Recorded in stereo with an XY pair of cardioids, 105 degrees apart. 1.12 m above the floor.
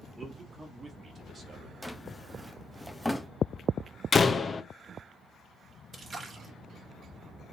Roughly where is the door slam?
Ahead left.